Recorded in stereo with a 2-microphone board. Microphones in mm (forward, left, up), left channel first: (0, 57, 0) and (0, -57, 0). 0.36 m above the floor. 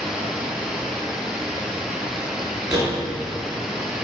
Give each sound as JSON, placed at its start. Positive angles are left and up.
{"t": 0.0, "sound": "running water", "side_deg": -5, "distance_m": 0.9}
{"t": 2.7, "sound": "a door slam", "side_deg": -30, "distance_m": 2.5}